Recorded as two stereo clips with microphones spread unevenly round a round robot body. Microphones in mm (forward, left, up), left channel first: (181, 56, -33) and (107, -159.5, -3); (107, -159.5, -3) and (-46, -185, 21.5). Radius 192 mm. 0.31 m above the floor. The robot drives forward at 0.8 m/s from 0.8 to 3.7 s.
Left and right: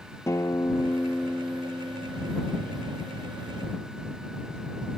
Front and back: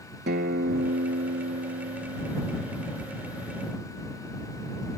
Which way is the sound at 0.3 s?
155° left.